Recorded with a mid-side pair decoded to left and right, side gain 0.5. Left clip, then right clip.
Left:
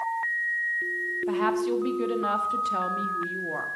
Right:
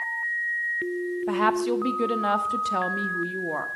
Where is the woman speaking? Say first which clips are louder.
Right 4 dB; 30° right, 1.8 m.